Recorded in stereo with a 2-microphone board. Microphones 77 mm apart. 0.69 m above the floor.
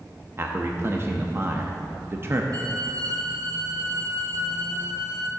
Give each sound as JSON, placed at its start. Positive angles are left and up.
{"t": 0.4, "sound": "a man speaking", "side_deg": -35, "distance_m": 0.6}
{"t": 2.5, "sound": "a violin", "side_deg": -65, "distance_m": 1.2}